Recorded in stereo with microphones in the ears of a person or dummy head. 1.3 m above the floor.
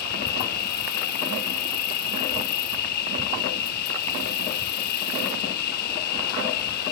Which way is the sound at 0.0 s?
55° left (ahead or behind).